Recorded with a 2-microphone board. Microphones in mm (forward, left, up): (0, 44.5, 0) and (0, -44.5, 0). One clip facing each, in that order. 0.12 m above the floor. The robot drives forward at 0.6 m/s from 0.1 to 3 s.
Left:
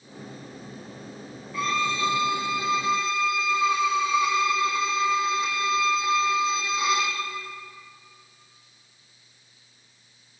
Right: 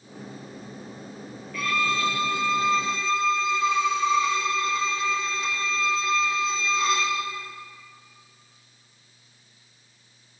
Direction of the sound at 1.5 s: 25° left (ahead or behind).